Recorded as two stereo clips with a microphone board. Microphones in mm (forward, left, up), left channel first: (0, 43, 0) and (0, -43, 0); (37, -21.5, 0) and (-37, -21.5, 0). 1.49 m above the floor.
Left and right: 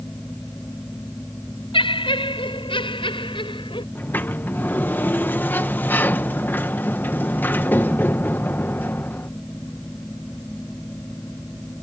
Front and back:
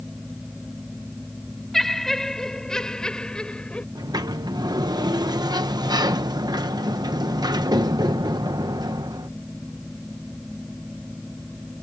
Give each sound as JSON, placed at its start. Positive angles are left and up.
{"t": 1.7, "sound": "laughter", "azimuth_deg": 85}
{"t": 4.0, "sound": "a sliding door", "azimuth_deg": 160}